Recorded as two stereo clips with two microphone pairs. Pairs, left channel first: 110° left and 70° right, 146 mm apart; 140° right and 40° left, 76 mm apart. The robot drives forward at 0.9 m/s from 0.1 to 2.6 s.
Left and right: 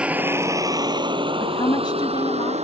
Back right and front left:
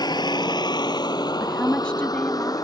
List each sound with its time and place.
0.0 s a vehicle: 155° right; by 2.6 s 110° right
1.4 s a woman speaking: 135° left; by 2.5 s 160° left